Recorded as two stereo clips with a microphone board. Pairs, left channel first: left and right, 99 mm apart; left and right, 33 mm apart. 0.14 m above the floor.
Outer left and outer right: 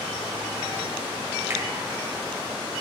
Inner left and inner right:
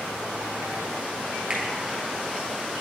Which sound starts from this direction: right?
A finger snap, at 1.5 s.